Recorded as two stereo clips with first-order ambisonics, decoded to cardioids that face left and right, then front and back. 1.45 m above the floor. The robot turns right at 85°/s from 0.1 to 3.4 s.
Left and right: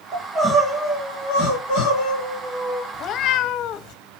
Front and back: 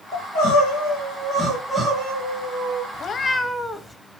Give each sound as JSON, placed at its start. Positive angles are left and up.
{"t": 0.1, "sound": "crying", "azimuth_deg": -45, "distance_m": 3.5}
{"t": 2.9, "sound": "a cat meowing", "azimuth_deg": 45, "distance_m": 0.9}